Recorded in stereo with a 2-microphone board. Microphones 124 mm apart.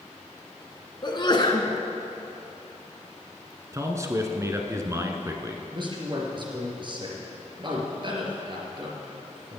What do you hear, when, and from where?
1.0 s a sneeze: 35° left (ahead or behind), 1.6 m
3.7 s a man speaking: 25° right (ahead or behind), 1.3 m
5.7 s a man speaking: 40° right (ahead or behind), 3 m